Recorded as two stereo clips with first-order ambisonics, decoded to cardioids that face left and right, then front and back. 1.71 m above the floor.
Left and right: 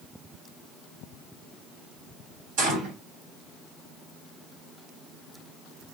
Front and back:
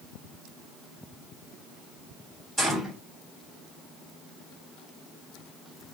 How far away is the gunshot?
About 1.5 m.